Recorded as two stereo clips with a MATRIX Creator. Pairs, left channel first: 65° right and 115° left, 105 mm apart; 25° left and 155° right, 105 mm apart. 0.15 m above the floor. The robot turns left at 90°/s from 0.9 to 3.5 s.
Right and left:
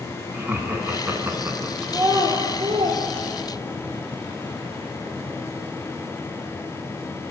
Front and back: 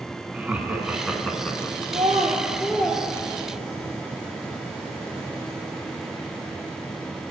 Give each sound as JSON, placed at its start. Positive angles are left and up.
{"t": 0.3, "sound": "laughter", "azimuth_deg": 145, "distance_m": 1.3}
{"t": 1.9, "sound": "a child speaking", "azimuth_deg": 175, "distance_m": 2.0}